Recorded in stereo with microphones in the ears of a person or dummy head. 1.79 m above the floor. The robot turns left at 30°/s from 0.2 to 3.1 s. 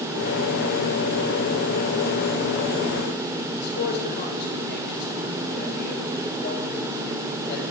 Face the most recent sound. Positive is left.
turn(degrees=60)  # may be behind; listen again after turning